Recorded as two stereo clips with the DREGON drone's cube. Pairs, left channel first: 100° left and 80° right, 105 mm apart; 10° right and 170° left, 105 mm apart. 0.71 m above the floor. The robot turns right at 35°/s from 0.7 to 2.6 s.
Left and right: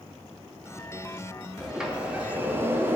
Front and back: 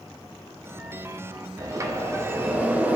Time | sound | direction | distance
1.6 | a sliding door | 165° right | 0.8 m